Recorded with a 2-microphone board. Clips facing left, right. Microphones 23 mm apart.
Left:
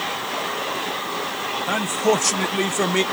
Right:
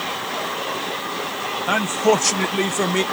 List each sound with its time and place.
1.7 s a man speaking: 25° right (ahead or behind); by 3.0 s 5° left (ahead or behind)